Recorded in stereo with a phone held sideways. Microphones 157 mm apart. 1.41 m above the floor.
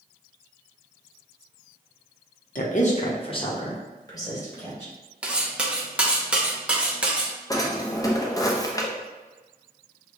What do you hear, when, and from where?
2.5 s a woman speaking: 60° left (ahead or behind), 0.8 m; by 4.9 s 15° left (ahead or behind), 2.5 m
5.2 s cutlery clinking: 5° right (ahead or behind), 0.7 m
7.5 s a drawer: 20° left (ahead or behind), 0.6 m